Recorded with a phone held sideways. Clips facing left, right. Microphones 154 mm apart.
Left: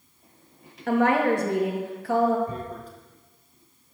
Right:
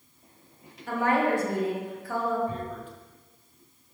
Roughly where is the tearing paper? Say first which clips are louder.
Even; left.